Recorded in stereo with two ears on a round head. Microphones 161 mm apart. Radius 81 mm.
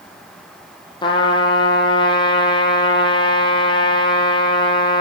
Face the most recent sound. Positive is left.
turn(degrees=30)  # may be behind; listen again after turning